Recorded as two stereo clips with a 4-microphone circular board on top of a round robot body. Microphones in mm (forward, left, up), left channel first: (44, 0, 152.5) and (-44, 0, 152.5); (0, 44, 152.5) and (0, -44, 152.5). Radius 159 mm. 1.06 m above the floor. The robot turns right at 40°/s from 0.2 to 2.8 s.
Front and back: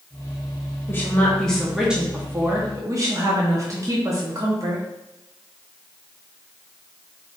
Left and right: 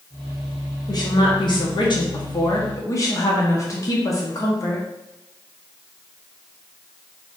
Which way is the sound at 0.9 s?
60° left.